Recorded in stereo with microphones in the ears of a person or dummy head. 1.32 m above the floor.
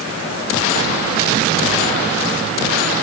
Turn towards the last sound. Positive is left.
No sound to turn to.